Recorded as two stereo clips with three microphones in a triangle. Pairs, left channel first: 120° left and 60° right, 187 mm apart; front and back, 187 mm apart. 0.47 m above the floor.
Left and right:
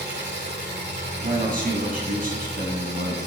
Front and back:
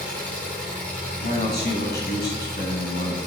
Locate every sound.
0.0 s an engine running: 80° right, 4.5 m
1.2 s a man speaking: 25° right, 3 m